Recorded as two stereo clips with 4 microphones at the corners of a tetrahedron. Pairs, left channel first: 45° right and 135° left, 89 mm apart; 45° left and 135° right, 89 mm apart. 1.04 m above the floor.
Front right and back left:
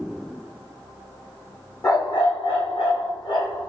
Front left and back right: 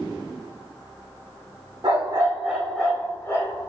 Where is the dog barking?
95° right, 1.2 m; by 3.7 s 5° right, 1.7 m.